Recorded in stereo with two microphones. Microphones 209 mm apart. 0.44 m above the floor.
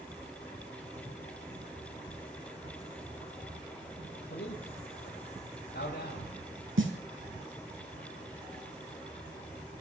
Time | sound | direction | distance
4.3 | a man speaking | 60° left (ahead or behind) | 7.5 m
6.8 | a snare drum | 85° right | 2.5 m